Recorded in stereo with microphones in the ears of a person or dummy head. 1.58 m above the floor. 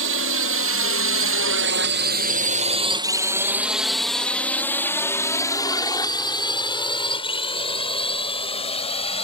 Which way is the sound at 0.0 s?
65° right (ahead or behind).